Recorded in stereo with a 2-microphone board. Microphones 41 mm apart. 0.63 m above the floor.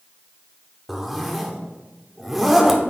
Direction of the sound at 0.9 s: 5° right (ahead or behind).